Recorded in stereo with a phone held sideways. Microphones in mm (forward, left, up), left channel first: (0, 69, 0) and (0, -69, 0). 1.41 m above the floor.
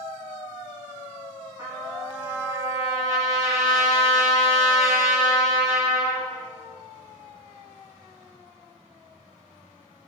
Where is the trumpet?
25° right (ahead or behind), 9 m.